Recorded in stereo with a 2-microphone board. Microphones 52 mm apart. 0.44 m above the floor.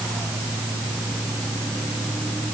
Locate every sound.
Only background noise.